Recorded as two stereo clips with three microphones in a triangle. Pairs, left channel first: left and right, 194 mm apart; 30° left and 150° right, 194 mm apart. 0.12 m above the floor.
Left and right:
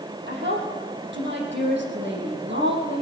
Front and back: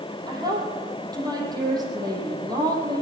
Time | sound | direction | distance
0.3 | a woman speaking | 80° right | 4.5 m